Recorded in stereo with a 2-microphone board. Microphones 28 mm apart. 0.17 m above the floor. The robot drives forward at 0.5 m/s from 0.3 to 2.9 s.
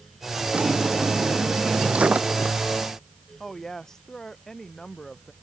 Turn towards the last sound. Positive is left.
turn(degrees=20)  # may be behind; listen again after turning